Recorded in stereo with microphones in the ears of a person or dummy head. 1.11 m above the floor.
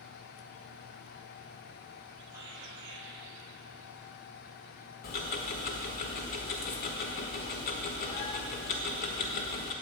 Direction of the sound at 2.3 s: 15° right (ahead or behind).